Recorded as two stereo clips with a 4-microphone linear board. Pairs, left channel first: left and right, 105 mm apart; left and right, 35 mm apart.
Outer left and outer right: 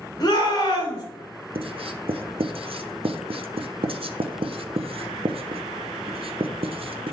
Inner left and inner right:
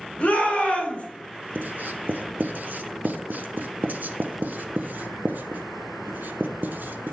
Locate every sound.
0.2 s a shout: 40° left (ahead or behind), 3.5 m
1.6 s writing: 60° right (ahead or behind), 0.7 m